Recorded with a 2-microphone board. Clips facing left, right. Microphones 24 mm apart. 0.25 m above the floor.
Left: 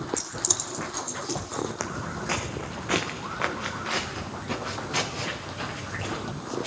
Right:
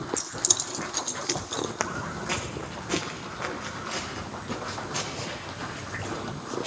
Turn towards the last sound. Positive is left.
turn(degrees=75)  # may be behind; listen again after turning